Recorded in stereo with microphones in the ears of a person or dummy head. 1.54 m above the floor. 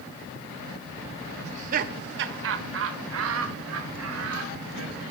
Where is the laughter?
35° right (ahead or behind), 0.6 m; by 5.0 s 80° right, 2 m.